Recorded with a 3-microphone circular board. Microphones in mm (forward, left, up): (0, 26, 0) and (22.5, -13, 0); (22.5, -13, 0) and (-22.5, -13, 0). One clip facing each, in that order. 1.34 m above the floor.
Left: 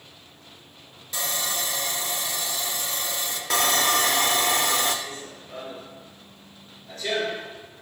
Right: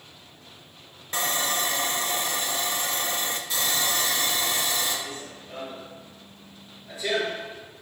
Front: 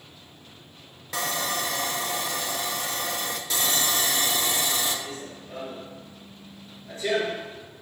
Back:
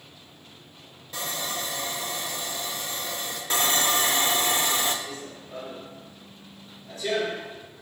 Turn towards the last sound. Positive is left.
turn(degrees=20)